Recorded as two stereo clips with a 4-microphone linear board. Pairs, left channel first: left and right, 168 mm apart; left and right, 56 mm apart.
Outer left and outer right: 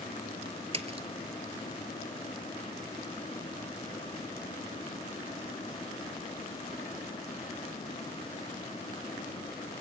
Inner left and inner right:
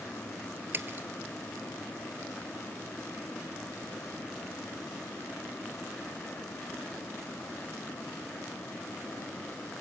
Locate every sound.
0.7 s a splash: 40° right (ahead or behind), 1.3 m